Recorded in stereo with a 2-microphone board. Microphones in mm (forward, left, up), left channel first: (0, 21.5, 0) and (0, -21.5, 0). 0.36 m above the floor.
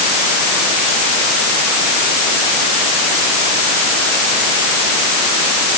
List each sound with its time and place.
Only background noise.